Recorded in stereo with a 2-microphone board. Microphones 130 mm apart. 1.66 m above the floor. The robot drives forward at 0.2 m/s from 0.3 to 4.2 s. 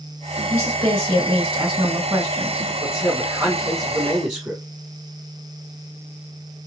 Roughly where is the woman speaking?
Right.